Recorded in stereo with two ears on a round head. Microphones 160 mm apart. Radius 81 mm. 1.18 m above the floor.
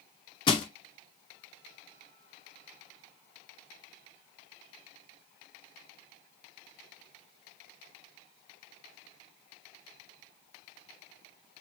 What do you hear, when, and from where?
0.5 s crushing: 25° left (ahead or behind), 0.6 m